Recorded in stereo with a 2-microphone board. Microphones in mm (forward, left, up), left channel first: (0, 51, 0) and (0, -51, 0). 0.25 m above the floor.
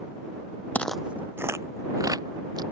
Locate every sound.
0.8 s footsteps: 15° left (ahead or behind); by 2.6 s 45° right (ahead or behind)